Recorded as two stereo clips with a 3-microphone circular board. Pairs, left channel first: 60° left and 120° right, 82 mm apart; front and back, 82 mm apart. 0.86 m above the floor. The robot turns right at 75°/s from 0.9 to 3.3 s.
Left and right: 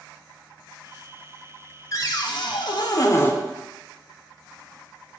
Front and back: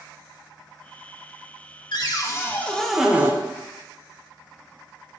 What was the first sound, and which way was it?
A cupboard door, 15° left.